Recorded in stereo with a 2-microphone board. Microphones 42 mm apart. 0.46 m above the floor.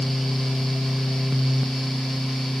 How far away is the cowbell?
No cowbell in this recording.